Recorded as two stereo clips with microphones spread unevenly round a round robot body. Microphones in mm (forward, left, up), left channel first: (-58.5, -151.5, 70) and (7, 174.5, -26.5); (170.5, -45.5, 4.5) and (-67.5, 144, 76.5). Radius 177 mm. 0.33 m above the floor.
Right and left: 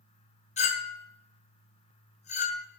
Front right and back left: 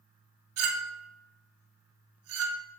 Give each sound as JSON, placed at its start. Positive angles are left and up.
{"t": 0.6, "sound": "a clink", "azimuth_deg": 180, "distance_m": 0.6}